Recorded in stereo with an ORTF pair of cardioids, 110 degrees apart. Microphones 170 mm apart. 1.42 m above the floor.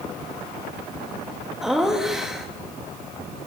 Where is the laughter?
5° right, 3 m.